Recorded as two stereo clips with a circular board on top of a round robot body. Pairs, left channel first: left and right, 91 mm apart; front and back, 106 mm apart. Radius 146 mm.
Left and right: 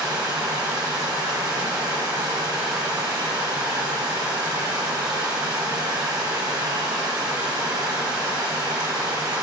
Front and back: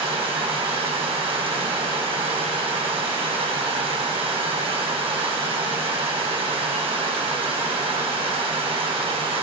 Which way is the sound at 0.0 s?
145° right.